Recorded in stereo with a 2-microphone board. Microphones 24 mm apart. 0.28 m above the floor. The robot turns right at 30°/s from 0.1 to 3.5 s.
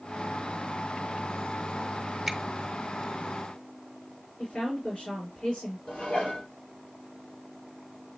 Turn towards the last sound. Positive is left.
turn(degrees=70)  # may be behind; listen again after turning